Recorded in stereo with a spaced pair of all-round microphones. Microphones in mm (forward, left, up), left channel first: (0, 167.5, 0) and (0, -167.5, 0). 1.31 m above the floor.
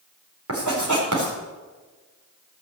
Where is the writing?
60° right (ahead or behind), 4 m.